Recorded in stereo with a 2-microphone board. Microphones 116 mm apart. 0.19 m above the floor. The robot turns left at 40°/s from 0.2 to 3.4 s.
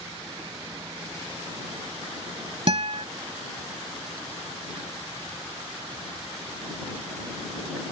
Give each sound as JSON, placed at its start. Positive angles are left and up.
{"t": 2.7, "sound": "a guitar", "side_deg": -55}